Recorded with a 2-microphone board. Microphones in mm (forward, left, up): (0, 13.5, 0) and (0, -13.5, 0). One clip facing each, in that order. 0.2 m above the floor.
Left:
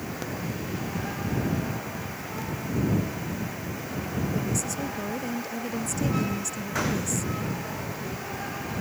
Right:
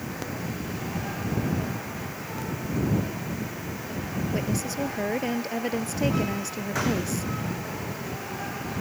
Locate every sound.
4.3 s a woman speaking: 35° right (ahead or behind)